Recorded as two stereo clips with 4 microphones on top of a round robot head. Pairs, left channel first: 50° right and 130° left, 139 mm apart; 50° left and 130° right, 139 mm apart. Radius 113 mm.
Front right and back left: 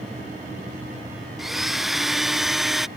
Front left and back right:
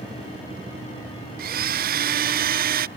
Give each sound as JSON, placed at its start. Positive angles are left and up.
{"t": 1.4, "sound": "a blender", "azimuth_deg": -140}